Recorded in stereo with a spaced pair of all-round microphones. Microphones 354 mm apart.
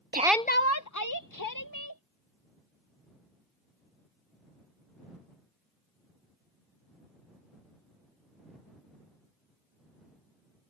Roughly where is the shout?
Right.